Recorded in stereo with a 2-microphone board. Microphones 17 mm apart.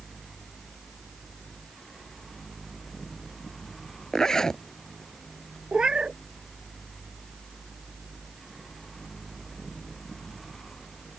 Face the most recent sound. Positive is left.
turn(degrees=-65)  # may be behind; listen again after turning